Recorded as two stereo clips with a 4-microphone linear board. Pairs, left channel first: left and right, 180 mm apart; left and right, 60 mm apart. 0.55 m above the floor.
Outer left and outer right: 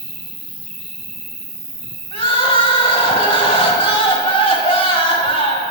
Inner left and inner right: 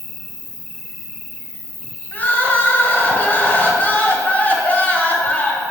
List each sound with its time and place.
0.0 s an insect: 15° left (ahead or behind), 1.0 m
2.1 s crying: 30° left (ahead or behind), 1.2 m